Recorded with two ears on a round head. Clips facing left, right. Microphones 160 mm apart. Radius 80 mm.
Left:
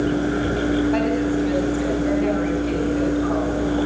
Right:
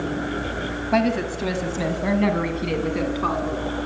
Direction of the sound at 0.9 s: 75° right (ahead or behind).